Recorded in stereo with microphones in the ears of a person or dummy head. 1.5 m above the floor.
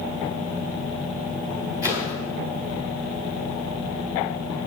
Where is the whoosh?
15° right (ahead or behind), 4 m.